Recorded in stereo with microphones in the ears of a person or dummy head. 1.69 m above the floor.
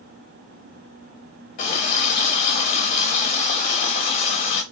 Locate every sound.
1.6 s a running tap: 40° left (ahead or behind), 0.9 m